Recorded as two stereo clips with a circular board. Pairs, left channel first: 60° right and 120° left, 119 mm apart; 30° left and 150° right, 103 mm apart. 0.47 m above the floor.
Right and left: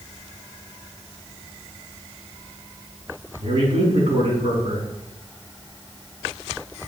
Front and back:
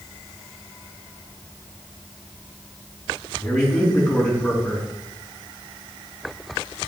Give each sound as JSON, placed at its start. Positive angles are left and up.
{"t": 3.4, "sound": "a man speaking", "azimuth_deg": 100, "distance_m": 4.0}